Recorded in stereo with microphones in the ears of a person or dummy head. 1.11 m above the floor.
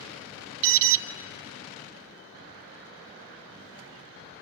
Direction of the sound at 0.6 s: 70° right (ahead or behind).